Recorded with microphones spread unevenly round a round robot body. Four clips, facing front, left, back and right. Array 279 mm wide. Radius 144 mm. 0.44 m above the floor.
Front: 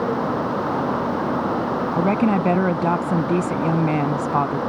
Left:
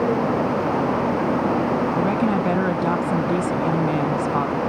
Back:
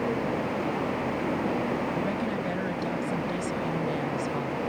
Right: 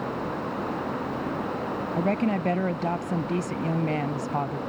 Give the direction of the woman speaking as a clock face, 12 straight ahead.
11 o'clock.